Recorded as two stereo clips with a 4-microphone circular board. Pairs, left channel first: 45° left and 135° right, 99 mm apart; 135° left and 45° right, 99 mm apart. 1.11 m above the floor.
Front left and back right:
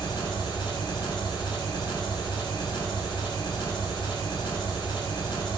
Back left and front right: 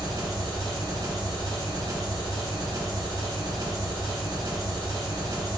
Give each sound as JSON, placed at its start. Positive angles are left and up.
{"t": 0.0, "sound": "an engine running", "azimuth_deg": 0, "distance_m": 1.0}